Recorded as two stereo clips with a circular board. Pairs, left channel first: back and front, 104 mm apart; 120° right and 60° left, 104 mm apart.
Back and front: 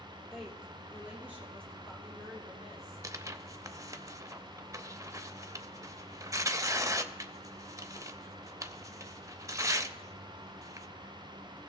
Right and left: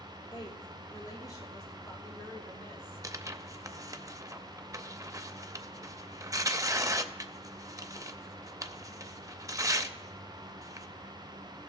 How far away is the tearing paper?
About 0.5 m.